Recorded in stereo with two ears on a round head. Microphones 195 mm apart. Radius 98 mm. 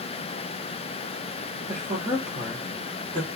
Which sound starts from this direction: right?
A woman speaking, at 1.7 s.